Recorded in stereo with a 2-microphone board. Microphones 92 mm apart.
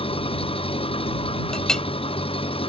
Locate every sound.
0.0 s an engine running: 85° left
1.5 s a clink: 10° left (ahead or behind)